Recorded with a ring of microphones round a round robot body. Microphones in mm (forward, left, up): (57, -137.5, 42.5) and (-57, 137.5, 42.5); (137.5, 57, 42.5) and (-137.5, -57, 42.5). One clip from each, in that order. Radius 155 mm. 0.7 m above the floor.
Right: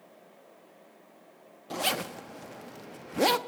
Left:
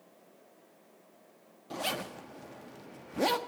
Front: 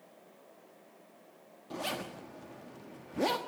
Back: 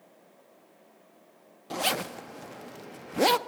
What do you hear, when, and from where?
1.7 s a zipper: 130° right, 1.1 m